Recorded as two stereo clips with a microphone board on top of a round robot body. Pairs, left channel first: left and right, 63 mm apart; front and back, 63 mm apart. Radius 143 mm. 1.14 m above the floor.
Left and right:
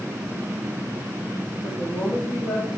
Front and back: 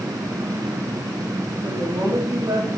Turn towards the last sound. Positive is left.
turn(degrees=145)